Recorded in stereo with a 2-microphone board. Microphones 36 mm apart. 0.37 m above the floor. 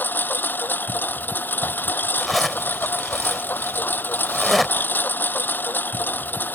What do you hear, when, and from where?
0.0 s a lawn mower: 70° left (ahead or behind)
2.2 s a zipper: centre (ahead or behind)